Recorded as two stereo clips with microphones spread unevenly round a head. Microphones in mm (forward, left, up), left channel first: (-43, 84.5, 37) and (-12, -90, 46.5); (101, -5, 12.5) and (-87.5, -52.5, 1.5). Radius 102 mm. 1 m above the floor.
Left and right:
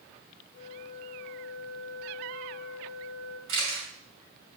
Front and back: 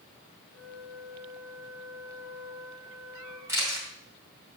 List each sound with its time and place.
0.5 s a flute: 145° right, 2.5 m
3.5 s a camera shutter: 90° right, 5 m